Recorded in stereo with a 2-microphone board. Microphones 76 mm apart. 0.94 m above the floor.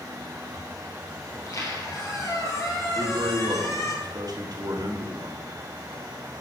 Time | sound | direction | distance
1.3 | a squeak | 45° left (ahead or behind) | 2.5 m
3.0 | a man speaking | 60° right (ahead or behind) | 1.7 m